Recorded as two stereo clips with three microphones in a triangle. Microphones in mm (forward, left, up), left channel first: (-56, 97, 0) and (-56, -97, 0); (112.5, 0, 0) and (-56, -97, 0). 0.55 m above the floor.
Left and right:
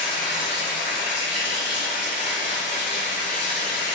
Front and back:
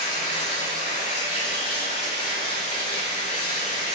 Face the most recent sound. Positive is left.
turn(degrees=65)